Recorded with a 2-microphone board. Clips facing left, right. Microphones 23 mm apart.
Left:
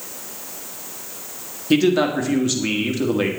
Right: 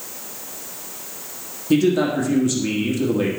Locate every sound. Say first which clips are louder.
1.7 s a man speaking: left 1 dB; 30° left (ahead or behind), 1.5 m